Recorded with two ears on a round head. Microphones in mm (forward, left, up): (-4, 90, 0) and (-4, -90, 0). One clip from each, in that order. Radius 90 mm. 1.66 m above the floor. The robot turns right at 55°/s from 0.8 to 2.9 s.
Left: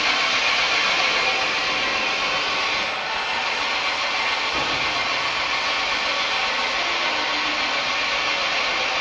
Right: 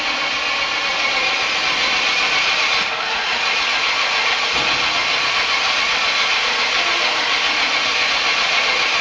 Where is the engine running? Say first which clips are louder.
Even; 170° left, 1.1 m; by 9.0 s 75° right, 1.1 m.